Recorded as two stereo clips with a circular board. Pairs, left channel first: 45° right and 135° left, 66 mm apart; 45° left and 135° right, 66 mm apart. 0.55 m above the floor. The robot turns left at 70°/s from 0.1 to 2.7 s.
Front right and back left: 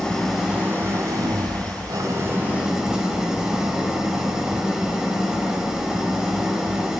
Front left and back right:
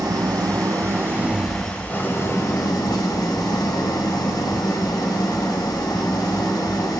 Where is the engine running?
120° right, 1.0 m; by 7.0 s 55° left, 1.0 m.